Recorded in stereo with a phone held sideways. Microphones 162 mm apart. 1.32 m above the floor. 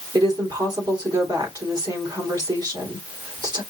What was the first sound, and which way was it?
A woman speaking, 25° right (ahead or behind).